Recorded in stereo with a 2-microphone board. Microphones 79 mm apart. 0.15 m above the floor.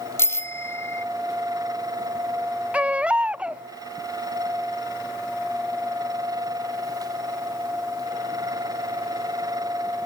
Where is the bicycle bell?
35° left (ahead or behind).